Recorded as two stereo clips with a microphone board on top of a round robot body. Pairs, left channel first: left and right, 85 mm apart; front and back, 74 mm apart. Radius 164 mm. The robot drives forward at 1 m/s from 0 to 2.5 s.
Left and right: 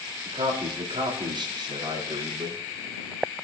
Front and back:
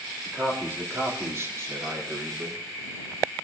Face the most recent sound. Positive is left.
turn(degrees=-140)